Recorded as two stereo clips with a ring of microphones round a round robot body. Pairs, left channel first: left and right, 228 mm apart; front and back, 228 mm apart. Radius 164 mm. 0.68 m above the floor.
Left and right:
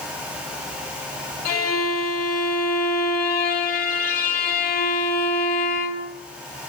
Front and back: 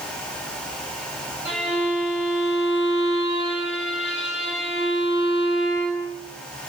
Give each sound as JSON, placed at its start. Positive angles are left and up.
{"t": 1.4, "sound": "a violin", "azimuth_deg": 95, "distance_m": 2.0}